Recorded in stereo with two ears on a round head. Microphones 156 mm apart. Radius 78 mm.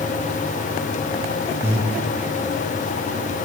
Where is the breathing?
15° right (ahead or behind), 0.6 m.